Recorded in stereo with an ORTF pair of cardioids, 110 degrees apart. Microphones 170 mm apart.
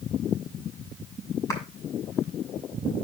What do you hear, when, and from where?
1.5 s a clap: 15° left, 6 m